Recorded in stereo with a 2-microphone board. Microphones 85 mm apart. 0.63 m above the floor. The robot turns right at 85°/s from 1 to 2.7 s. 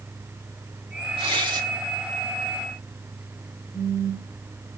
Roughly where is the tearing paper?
Right.